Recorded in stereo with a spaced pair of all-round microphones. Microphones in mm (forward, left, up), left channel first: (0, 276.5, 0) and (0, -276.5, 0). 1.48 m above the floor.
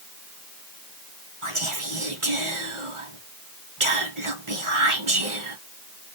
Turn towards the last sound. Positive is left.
turn(degrees=-60)  # may be behind; listen again after turning